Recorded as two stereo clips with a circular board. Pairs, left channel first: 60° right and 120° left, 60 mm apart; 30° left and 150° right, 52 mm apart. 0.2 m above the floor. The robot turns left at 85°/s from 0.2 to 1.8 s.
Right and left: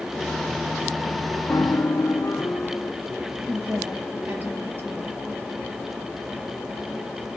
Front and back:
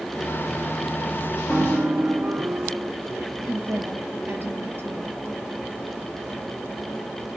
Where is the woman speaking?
170° left, 4.5 m.